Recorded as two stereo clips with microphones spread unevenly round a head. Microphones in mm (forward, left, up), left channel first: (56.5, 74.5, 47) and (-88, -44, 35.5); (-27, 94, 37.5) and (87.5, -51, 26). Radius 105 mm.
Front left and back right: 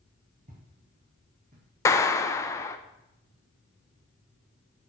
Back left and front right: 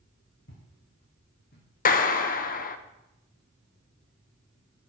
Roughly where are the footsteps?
Behind.